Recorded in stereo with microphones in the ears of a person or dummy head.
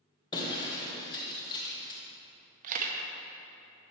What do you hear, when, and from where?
0.3 s breaking glass: 30° left (ahead or behind), 2.5 m
2.6 s a camera shutter: 45° right (ahead or behind), 1.1 m